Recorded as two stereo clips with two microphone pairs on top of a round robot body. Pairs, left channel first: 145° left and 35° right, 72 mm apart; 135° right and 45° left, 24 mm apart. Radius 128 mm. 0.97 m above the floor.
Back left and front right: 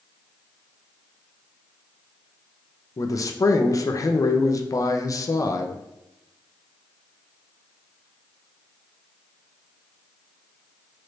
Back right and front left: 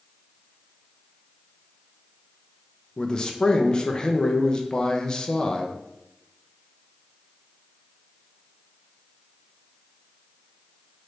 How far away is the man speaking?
About 0.5 m.